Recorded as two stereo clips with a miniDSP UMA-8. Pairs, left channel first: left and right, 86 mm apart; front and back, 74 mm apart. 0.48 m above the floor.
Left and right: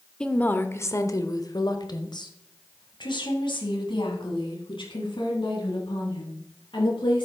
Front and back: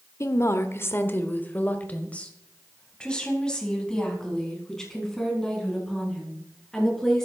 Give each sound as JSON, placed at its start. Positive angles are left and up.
{"t": 0.2, "sound": "a woman speaking", "azimuth_deg": 15, "distance_m": 0.9}